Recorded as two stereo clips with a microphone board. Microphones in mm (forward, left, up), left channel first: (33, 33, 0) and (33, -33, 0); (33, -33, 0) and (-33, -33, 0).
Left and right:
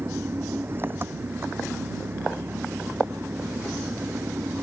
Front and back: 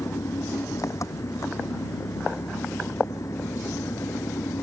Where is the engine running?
35° right.